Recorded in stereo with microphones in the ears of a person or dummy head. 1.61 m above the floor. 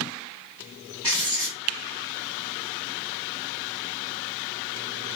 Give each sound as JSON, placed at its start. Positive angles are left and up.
{"t": 1.0, "sound": "writing", "side_deg": -20, "distance_m": 0.5}